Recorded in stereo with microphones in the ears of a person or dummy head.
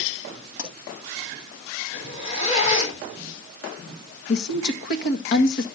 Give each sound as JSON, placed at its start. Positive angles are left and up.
{"t": 0.6, "sound": "a pop", "side_deg": 85, "distance_m": 9.0}
{"t": 1.9, "sound": "a zipper", "side_deg": 45, "distance_m": 4.5}
{"t": 4.3, "sound": "a woman speaking", "side_deg": 65, "distance_m": 1.7}